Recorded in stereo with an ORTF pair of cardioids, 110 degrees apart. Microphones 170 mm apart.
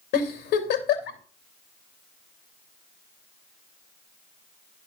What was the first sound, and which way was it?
A giggle, 70° left.